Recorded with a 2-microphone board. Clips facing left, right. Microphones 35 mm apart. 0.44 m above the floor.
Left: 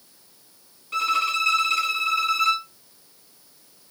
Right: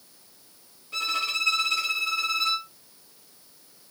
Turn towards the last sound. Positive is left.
turn(degrees=85)